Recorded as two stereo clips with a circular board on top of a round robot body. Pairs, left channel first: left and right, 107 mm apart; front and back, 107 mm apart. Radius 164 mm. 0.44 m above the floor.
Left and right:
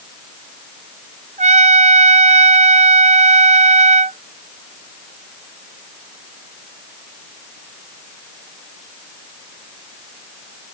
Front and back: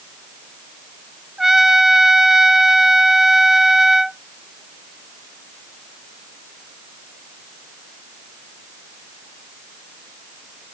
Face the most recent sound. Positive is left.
turn(degrees=-95)